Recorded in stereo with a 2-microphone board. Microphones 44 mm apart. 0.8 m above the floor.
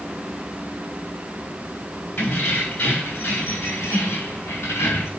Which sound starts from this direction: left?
Keys jangling, at 2.2 s.